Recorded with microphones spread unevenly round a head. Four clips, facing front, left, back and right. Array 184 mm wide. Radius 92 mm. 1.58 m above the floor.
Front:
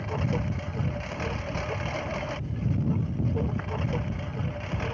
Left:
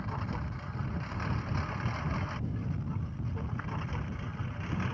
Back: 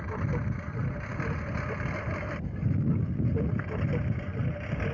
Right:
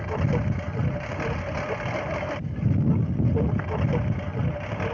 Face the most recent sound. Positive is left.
turn(degrees=-100)